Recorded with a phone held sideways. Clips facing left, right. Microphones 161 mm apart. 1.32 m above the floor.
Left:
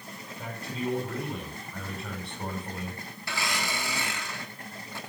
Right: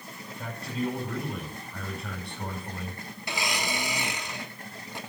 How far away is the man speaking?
About 5.5 m.